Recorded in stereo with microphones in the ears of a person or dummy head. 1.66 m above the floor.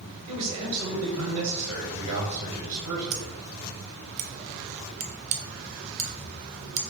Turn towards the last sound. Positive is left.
turn(degrees=-40)  # may be behind; listen again after turning